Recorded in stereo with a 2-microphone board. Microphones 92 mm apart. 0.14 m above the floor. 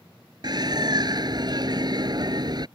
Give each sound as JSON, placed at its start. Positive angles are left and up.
{"t": 0.4, "sound": "a bird", "side_deg": -50}